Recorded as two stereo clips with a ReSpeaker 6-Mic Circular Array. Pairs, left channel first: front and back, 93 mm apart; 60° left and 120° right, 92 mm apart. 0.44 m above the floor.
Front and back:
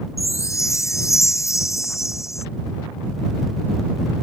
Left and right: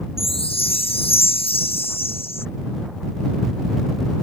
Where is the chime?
55° left.